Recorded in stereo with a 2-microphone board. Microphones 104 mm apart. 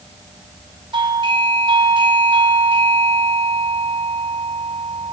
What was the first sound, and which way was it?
A doorbell, 50° right (ahead or behind).